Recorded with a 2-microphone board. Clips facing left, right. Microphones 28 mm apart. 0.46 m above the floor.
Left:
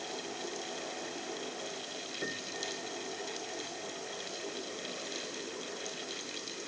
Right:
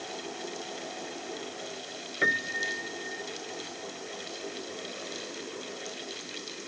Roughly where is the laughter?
I don't hear laughter.